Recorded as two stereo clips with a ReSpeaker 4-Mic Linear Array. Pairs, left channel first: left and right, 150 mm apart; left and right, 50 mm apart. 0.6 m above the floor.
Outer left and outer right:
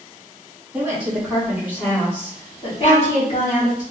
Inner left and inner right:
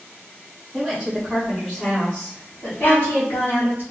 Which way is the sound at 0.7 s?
10° right (ahead or behind).